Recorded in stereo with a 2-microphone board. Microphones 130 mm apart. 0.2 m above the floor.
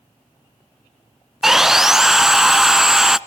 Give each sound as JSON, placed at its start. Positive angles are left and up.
{"t": 1.4, "sound": "sawing", "side_deg": -5, "distance_m": 0.6}